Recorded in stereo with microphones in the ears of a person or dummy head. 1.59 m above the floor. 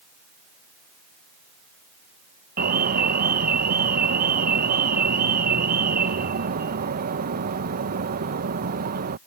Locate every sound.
2.6 s an alarm: 50° right (ahead or behind)